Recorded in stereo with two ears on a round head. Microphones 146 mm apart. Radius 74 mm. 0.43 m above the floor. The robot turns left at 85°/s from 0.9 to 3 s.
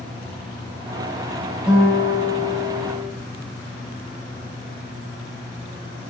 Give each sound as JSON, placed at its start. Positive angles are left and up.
{"t": 1.7, "sound": "a guitar", "azimuth_deg": -5, "distance_m": 1.9}